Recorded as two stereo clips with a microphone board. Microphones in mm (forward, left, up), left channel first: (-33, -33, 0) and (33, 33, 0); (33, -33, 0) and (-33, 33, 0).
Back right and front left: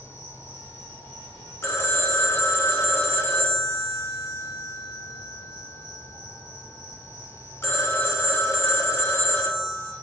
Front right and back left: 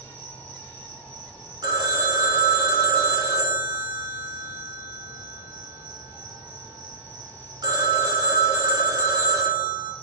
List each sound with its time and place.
0.0 s an insect: 10° left, 1.2 m
1.6 s a phone ringing: 165° left, 0.5 m